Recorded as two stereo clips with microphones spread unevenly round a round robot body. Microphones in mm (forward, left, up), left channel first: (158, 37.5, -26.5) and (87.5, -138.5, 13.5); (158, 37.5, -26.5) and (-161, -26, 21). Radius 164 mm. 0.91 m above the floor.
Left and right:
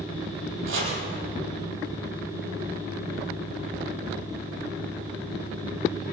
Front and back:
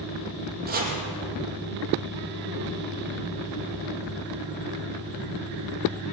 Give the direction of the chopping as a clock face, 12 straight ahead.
3 o'clock.